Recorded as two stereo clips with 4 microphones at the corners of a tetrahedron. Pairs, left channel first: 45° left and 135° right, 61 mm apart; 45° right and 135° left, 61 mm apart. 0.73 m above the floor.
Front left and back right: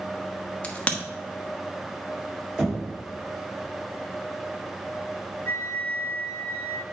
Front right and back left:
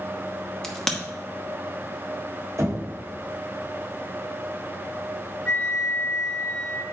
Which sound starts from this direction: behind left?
Knocking, at 2.6 s.